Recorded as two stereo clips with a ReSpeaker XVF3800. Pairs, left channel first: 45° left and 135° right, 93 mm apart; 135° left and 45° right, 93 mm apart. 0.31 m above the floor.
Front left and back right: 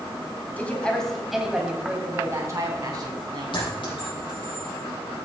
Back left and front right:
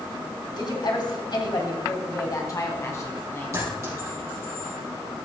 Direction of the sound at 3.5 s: 10° left.